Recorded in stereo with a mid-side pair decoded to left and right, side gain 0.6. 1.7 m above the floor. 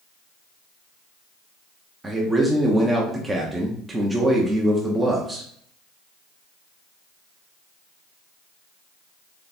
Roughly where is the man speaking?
Ahead.